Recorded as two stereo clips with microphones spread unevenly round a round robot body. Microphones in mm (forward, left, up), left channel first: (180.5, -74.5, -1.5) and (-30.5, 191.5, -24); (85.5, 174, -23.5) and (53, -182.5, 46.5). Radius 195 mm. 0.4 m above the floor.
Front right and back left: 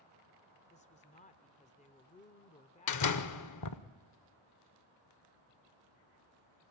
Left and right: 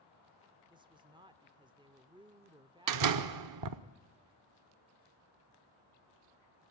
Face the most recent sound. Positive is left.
turn(degrees=-70)